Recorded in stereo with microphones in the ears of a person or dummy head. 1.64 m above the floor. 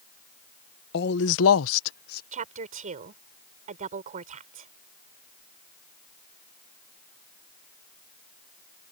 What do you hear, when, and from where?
0.9 s a man speaking: 60° left (ahead or behind); by 2.2 s 50° left (ahead or behind)
2.3 s a woman speaking: 45° right (ahead or behind)